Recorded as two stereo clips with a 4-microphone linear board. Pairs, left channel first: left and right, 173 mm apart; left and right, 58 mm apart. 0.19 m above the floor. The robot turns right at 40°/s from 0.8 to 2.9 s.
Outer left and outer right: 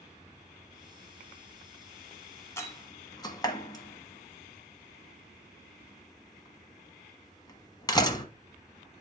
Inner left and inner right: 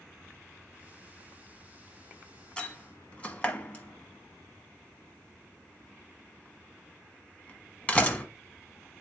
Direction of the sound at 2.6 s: 15° left (ahead or behind).